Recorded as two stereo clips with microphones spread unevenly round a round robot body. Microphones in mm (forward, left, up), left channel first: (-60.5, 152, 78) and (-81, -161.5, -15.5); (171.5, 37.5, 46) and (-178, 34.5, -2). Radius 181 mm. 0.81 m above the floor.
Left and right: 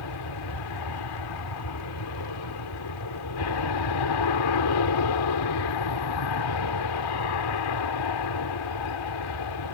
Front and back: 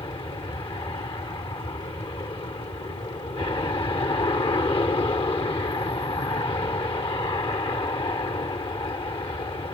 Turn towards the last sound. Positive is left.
turn(degrees=80)